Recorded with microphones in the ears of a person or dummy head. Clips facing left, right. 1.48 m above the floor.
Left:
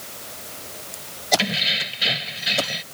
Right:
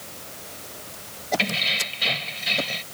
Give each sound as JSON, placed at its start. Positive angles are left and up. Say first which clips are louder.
{"t": 1.4, "sound": "keys jangling", "louder": "left 2 dB", "side_deg": 10}